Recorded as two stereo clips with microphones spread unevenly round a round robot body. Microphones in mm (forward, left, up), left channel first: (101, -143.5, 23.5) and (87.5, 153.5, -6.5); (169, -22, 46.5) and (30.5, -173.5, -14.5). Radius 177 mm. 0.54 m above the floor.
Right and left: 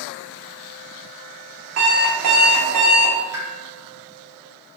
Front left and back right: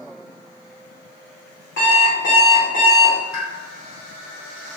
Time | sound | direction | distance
1.8 | an alarm clock | 105° left | 1.0 m
3.3 | a pop | 55° left | 1.3 m